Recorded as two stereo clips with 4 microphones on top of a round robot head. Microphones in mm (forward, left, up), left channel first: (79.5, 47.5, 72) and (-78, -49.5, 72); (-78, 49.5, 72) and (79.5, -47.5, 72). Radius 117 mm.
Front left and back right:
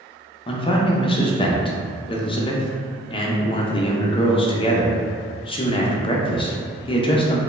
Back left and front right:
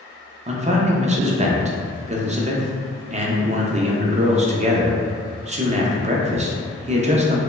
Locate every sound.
0.5 s a man speaking: 10° right, 0.5 m